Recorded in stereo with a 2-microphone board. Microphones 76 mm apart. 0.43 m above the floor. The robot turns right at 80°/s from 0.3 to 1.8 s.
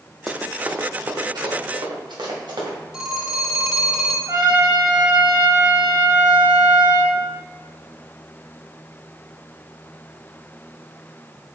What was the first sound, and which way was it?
Running footsteps, 5° left (ahead or behind).